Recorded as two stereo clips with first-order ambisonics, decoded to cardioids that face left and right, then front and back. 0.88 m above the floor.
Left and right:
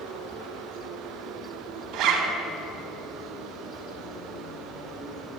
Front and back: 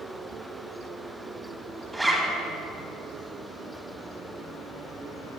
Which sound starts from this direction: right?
A zipper, at 1.9 s.